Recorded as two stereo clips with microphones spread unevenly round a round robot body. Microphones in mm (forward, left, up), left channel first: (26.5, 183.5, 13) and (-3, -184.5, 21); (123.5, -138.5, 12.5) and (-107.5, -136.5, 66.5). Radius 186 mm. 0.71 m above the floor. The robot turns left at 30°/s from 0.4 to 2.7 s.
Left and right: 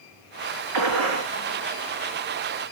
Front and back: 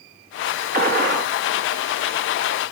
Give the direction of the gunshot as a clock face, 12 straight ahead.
4 o'clock.